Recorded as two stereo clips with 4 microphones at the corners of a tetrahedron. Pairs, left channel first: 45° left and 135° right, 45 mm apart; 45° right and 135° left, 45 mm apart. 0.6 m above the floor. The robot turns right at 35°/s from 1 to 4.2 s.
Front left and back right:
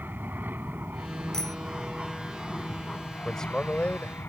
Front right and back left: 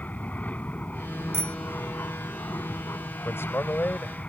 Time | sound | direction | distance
0.0 | an aircraft | 95° right | ?
1.3 | a bicycle bell | 120° left | ?
3.2 | a man speaking | 35° right | ?